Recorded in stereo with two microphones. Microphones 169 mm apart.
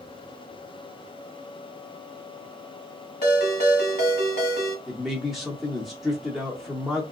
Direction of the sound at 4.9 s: Centre (ahead or behind).